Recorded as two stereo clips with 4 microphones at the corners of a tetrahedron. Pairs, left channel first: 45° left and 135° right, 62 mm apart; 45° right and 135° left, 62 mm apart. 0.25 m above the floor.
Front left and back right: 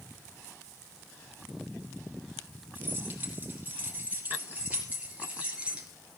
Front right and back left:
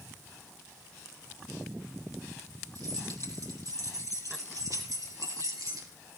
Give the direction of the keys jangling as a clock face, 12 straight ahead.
7 o'clock.